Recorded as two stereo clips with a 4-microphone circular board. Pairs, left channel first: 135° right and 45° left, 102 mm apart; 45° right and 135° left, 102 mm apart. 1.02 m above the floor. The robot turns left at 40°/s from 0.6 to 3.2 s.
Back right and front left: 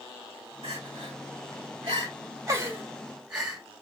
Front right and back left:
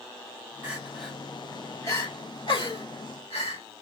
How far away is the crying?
About 1.5 m.